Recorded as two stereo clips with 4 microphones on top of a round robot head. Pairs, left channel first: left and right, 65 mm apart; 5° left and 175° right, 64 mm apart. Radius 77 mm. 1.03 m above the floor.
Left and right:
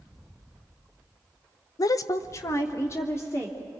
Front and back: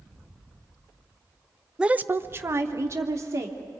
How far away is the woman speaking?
About 0.5 m.